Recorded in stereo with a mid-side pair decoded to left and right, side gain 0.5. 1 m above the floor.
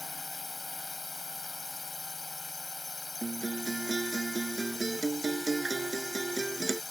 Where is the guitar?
20° right.